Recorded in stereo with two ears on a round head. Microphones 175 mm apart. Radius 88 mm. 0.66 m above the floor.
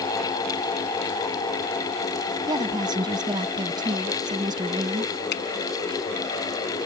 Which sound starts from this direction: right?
A woman speaking, at 2.5 s.